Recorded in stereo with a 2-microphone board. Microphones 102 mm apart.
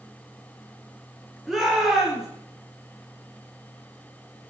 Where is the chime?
No chime in this recording.